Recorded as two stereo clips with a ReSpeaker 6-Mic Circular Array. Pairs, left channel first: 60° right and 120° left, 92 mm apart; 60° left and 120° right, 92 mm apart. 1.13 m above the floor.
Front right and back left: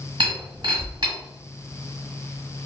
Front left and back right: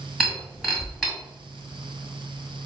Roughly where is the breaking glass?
Behind left.